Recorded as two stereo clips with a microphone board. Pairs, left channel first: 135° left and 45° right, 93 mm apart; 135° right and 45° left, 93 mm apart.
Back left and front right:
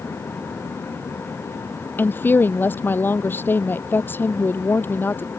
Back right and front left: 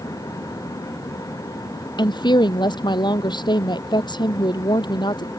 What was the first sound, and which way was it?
A woman speaking, 160° right.